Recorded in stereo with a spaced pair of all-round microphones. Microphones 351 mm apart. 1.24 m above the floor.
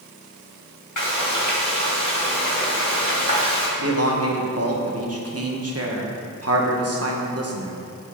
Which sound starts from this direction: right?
A man speaking, at 3.8 s.